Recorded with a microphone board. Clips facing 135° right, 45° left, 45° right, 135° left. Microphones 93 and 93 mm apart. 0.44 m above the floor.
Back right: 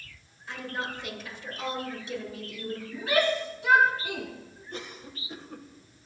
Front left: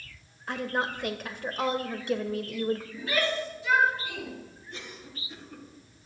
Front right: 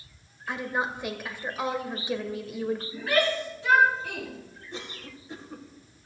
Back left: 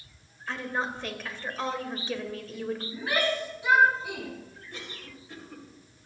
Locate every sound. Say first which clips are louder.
0.5 s a woman speaking: front left 5 dB, front right 2 dB; 30° left, 1.6 m
2.9 s a shout: back right 3 dB, front right 3 dB; 150° right, 6.5 m
4.7 s a cough: back right 4 dB, front right 4 dB; 105° right, 2.5 m